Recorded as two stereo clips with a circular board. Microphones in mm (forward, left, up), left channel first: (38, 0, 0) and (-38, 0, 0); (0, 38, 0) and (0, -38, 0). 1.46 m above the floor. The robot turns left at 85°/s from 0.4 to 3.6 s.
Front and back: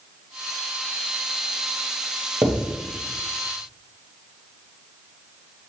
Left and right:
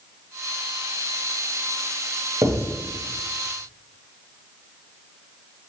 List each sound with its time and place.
2.4 s writing: 135° right, 1.2 m; by 2.7 s 155° right, 1.2 m